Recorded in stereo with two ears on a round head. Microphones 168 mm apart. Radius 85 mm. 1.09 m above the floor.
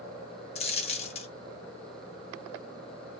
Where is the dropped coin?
30° left (ahead or behind), 0.6 m.